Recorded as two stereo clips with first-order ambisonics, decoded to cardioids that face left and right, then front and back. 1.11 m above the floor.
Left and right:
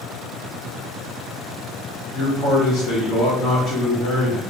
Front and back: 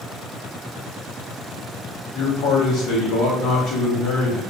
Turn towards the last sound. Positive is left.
turn(degrees=40)